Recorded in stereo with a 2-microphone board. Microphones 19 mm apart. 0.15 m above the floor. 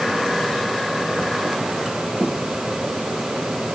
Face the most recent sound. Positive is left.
No sound to turn to.